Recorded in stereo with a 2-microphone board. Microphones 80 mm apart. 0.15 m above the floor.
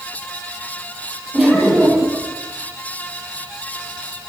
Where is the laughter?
5° right (ahead or behind), 5.5 m.